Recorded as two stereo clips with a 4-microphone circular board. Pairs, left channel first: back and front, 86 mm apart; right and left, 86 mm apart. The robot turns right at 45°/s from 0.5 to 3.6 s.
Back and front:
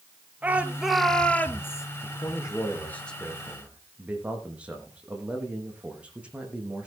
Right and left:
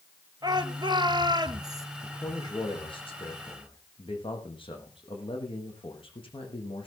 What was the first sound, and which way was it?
A shout, 70° left.